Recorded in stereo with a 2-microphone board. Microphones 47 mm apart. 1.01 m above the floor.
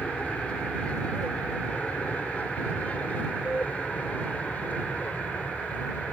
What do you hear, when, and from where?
0.0 s an aircraft: 25° left (ahead or behind); by 6.1 s 30° left (ahead or behind)